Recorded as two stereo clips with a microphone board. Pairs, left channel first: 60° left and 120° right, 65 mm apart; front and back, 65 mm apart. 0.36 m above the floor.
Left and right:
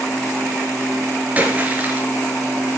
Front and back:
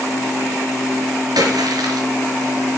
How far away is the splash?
About 1.7 m.